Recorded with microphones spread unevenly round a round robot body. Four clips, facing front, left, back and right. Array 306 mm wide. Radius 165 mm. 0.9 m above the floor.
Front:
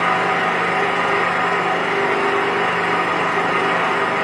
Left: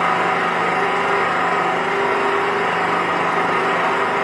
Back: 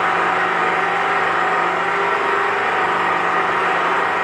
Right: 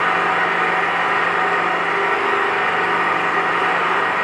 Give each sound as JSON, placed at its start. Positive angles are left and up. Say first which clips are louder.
{"t": 0.0, "sound": "an engine running", "louder": "even, even", "azimuth_deg": 50, "distance_m": 4.0}